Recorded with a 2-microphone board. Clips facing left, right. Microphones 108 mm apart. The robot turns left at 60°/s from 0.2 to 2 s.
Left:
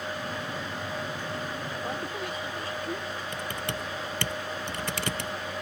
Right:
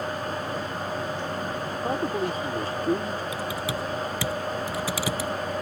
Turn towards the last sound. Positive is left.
turn(degrees=-5)  # may be behind; listen again after turning